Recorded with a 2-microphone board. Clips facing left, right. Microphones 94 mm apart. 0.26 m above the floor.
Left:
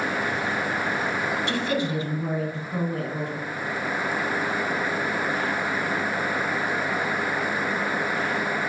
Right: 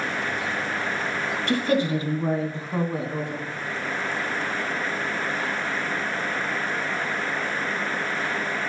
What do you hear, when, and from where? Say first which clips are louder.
1.5 s a woman speaking: right 3 dB; 45° right (ahead or behind), 1.4 m; by 3.5 s 20° right (ahead or behind), 1.9 m